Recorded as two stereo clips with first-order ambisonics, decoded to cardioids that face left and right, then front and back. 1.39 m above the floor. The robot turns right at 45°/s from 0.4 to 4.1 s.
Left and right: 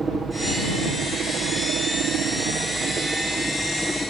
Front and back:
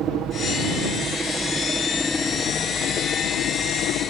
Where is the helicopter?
160° right; by 4.1 s 10° left.